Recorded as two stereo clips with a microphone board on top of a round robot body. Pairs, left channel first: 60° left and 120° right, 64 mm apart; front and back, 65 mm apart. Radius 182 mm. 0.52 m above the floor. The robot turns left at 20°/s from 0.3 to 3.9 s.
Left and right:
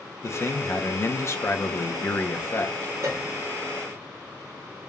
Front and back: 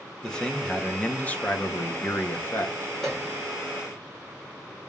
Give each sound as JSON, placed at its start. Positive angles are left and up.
{"t": 0.2, "sound": "a man speaking", "azimuth_deg": 75, "distance_m": 1.0}
{"t": 3.0, "sound": "a piano", "azimuth_deg": -80, "distance_m": 1.6}